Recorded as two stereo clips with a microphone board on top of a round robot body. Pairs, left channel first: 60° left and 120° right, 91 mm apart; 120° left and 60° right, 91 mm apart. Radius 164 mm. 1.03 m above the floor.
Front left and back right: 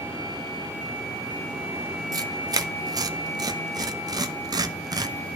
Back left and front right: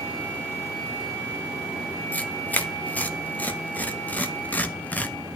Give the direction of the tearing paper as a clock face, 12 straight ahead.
6 o'clock.